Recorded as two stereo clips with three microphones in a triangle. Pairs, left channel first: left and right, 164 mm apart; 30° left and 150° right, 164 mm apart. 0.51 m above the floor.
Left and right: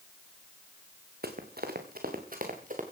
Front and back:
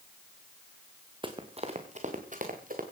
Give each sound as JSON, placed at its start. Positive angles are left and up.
{"t": 1.2, "sound": "running footsteps", "azimuth_deg": -90, "distance_m": 2.5}